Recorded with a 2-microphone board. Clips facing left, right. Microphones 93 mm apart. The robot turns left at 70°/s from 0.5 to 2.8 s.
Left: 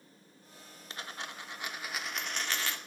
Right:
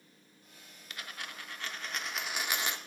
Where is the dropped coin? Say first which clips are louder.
Left 2 dB; 85° left, 0.7 m; by 2.8 s 45° right, 0.7 m.